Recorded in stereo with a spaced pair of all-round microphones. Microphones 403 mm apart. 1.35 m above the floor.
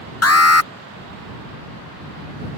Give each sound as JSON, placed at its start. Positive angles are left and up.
{"t": 0.2, "sound": "an alarm", "side_deg": 40}